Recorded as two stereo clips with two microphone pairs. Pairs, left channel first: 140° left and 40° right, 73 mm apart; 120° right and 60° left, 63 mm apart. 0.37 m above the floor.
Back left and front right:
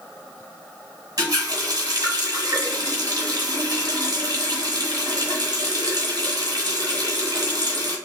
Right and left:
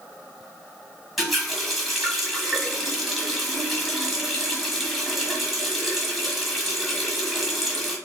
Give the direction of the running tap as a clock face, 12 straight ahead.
1 o'clock.